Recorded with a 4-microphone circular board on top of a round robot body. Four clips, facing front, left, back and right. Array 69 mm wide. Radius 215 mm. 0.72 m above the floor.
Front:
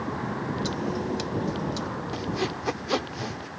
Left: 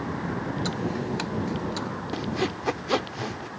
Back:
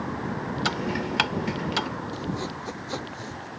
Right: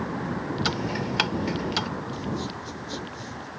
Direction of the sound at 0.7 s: 155° right.